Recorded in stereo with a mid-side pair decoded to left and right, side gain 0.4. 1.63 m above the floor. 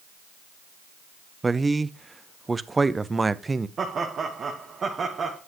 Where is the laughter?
50° right, 1.5 m.